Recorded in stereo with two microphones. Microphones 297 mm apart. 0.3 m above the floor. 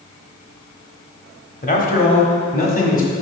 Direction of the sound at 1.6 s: 30° left (ahead or behind).